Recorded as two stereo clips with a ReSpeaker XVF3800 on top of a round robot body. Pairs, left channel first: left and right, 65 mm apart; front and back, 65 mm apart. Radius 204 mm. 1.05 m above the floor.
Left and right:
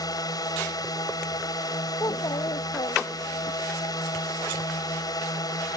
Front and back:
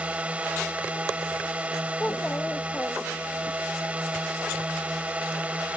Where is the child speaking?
75° left.